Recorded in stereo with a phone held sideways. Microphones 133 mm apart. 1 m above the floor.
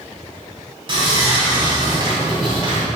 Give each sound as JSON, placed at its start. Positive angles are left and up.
{"t": 0.9, "sound": "sawing", "side_deg": -35, "distance_m": 2.0}